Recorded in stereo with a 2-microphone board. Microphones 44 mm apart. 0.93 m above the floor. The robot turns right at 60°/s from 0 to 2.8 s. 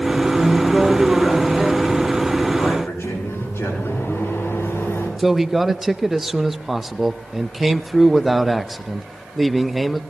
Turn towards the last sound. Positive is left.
turn(degrees=-5)  # may be behind; listen again after turning